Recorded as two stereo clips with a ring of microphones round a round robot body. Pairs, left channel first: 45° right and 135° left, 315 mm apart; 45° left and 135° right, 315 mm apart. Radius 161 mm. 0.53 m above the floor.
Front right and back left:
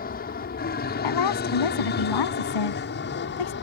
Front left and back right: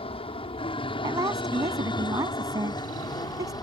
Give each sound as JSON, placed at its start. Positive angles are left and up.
{"t": 0.0, "sound": "an aircraft", "azimuth_deg": -15}
{"t": 1.0, "sound": "a woman speaking", "azimuth_deg": -55}